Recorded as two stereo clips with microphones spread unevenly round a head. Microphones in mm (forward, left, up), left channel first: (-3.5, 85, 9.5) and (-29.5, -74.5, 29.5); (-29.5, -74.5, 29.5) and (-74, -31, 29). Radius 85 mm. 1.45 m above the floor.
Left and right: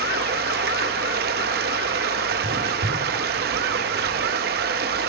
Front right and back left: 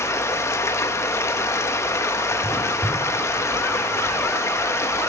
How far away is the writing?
About 3.5 m.